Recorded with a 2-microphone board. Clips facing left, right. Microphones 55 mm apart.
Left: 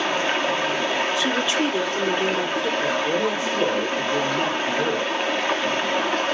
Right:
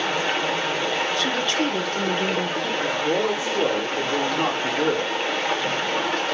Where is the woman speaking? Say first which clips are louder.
Left 1 dB; 5° left (ahead or behind), 1.2 m.